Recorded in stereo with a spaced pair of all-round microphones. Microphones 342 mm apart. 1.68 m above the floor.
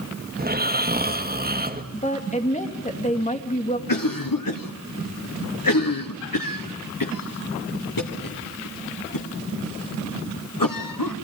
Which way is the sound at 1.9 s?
20° left (ahead or behind).